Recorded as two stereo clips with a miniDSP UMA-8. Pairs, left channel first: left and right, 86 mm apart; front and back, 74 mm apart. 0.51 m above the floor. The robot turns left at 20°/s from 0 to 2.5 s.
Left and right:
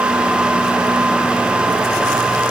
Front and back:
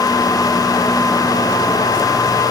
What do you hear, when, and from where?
Only background noise.